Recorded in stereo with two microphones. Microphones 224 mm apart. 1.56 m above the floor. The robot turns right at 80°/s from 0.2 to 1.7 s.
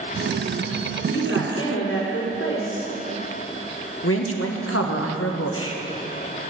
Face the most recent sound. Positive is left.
turn(degrees=80)